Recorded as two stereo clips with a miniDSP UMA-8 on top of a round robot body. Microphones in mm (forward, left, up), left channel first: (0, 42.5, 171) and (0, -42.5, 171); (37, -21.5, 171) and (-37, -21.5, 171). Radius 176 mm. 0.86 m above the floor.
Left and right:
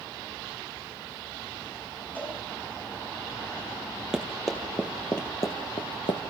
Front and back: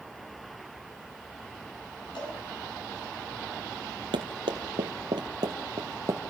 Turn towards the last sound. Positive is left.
turn(degrees=120)